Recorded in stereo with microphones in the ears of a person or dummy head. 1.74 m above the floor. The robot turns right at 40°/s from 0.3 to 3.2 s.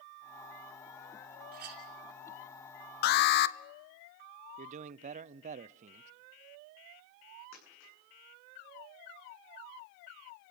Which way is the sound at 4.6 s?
40° right (ahead or behind).